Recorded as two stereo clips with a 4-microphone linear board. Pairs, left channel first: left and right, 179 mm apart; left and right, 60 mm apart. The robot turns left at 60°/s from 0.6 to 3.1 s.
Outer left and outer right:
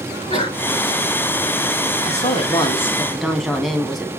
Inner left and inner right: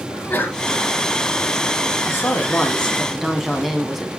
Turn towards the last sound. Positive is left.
turn(degrees=0)